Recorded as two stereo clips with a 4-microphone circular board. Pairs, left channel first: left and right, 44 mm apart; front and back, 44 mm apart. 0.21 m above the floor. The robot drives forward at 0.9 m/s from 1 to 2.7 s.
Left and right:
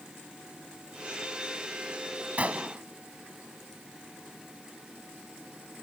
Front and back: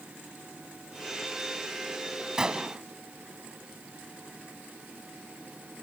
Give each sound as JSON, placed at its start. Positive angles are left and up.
{"t": 2.4, "sound": "a gunshot", "azimuth_deg": -115}